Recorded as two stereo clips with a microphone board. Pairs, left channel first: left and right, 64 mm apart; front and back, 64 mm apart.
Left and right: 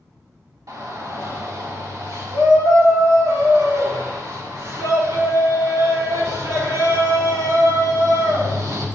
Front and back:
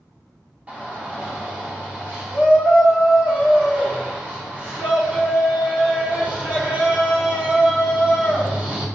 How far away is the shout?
About 2.5 m.